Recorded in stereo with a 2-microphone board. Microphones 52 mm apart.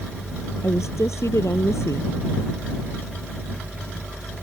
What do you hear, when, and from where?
0.6 s a woman speaking: 65° left (ahead or behind)